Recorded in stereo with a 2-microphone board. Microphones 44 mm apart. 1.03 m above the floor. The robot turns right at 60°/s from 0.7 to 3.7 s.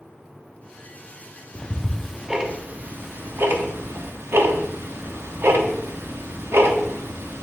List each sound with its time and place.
1.6 s ticking: 25° left (ahead or behind), 0.7 m; by 7.4 s 65° right (ahead or behind), 0.7 m